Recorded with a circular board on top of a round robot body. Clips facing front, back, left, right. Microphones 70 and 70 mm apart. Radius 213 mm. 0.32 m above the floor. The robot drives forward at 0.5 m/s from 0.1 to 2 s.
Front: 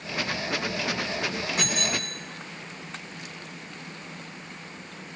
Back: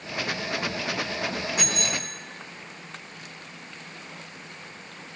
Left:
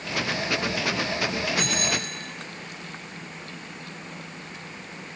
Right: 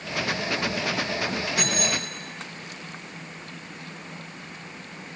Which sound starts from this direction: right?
A bicycle bell, at 1.6 s.